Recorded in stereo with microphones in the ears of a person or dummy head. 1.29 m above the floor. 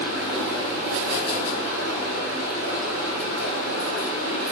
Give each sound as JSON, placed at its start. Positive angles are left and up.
{"t": 0.0, "sound": "running water", "side_deg": -45, "distance_m": 1.8}